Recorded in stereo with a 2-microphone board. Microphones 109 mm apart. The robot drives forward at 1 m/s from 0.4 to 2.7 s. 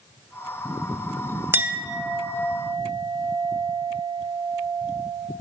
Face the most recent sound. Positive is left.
turn(degrees=-5)  # may be behind; listen again after turning